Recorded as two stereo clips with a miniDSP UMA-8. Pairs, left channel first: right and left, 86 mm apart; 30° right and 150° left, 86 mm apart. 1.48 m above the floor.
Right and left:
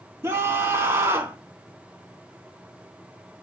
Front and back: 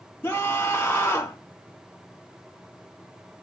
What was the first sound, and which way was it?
A scream, 35° left.